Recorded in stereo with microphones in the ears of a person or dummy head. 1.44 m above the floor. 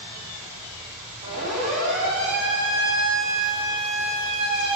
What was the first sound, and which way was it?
A siren, 40° right (ahead or behind).